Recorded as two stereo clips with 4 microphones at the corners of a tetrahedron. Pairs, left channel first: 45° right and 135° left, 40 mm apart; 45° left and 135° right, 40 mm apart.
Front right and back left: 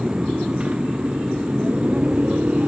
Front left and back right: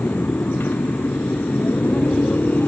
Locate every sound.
0.0 s a motorcycle: 70° left; by 2.7 s 80° left